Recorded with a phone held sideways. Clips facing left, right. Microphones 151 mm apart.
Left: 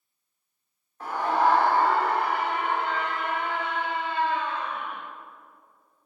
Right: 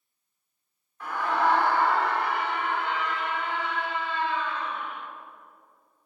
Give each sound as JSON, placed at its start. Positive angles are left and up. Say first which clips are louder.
{"t": 1.0, "sound": "a scream", "louder": "left 2 dB", "side_deg": 35, "distance_m": 3.0}